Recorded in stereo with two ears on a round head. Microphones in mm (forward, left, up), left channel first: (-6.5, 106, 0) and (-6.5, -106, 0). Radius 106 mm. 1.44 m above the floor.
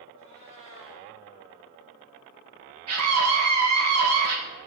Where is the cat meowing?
55° right (ahead or behind), 7.5 m.